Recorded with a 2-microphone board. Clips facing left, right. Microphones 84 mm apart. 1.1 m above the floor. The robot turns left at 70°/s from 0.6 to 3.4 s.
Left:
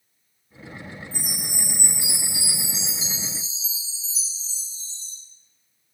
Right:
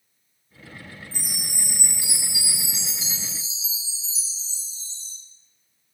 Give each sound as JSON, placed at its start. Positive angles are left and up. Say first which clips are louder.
{"t": 1.1, "sound": "a chime", "louder": "left 3 dB", "azimuth_deg": 150, "distance_m": 1.3}